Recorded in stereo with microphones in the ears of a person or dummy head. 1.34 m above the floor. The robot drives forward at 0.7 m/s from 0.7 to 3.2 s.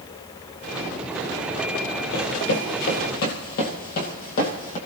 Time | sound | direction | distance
2.1 | running footsteps | 45° left (ahead or behind) | 1.9 m